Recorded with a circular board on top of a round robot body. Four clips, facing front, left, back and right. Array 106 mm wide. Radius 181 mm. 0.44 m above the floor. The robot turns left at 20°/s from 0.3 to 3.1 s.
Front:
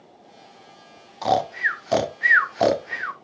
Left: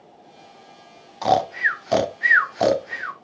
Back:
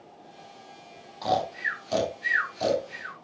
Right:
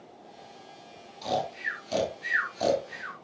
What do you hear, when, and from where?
1.2 s snoring: 65° left, 1.4 m; by 3.1 s 30° left, 1.4 m